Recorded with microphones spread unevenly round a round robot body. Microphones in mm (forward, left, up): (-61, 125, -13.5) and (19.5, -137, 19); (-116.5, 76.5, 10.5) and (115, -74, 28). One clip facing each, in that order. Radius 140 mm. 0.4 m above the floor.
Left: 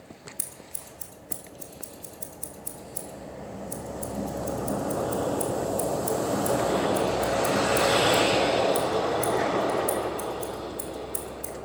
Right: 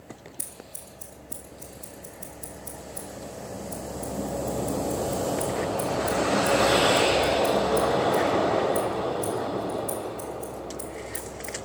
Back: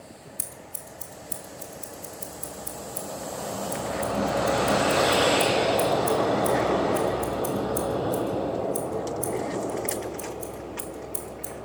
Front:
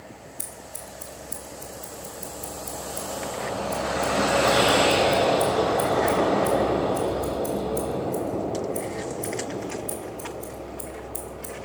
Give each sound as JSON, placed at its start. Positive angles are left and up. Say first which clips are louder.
{"t": 0.4, "sound": "scissors", "louder": "right 1 dB, front 2 dB", "azimuth_deg": 165, "distance_m": 1.9}